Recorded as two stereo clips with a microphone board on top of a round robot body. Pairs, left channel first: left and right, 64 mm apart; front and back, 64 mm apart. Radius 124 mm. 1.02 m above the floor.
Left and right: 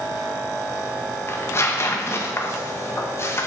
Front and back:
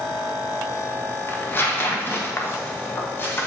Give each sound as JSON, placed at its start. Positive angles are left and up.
{"t": 1.3, "sound": "tearing paper", "azimuth_deg": 50, "distance_m": 1.2}